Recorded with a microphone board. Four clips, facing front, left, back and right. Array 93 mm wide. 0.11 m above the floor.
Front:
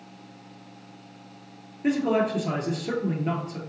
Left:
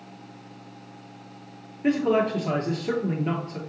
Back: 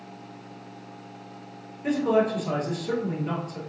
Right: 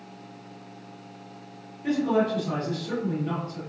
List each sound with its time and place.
1.8 s a man speaking: 65° left, 1.8 m